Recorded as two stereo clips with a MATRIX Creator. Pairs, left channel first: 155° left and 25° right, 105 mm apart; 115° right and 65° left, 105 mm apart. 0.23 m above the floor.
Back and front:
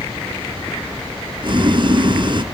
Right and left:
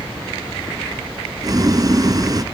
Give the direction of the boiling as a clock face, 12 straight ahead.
11 o'clock.